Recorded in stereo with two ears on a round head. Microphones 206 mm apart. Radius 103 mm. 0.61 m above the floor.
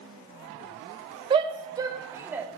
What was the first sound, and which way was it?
A shout, 20° right (ahead or behind).